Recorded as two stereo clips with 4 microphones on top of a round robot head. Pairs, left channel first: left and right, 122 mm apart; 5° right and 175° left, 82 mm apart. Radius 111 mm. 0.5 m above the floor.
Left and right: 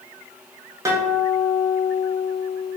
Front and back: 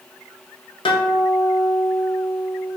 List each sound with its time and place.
0.8 s a guitar: 20° right, 0.6 m